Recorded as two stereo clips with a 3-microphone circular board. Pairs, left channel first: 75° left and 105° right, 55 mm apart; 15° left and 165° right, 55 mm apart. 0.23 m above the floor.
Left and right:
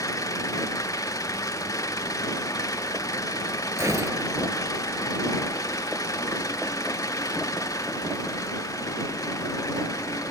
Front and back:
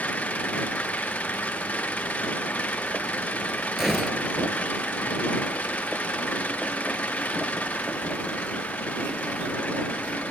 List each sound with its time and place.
0.0 s an engine running: 80° left
3.8 s a gunshot: 80° right